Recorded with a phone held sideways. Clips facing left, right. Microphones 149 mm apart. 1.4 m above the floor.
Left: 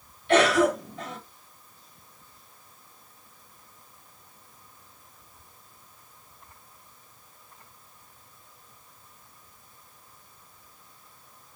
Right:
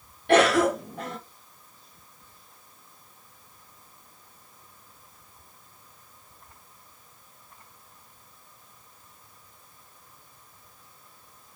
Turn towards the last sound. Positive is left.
turn(degrees=-65)  # may be behind; listen again after turning